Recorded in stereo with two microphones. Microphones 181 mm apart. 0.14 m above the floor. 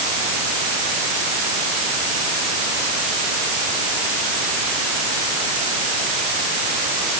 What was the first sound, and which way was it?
Only background noise.